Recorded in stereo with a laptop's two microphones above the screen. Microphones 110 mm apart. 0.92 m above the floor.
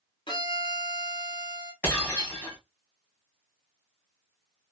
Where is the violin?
50° left (ahead or behind), 1.4 m.